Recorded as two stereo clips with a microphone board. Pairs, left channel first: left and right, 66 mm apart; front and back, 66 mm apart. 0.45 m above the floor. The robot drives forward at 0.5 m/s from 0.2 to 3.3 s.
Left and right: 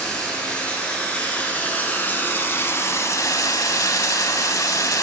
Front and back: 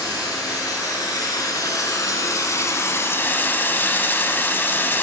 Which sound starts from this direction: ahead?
Running water, at 0.0 s.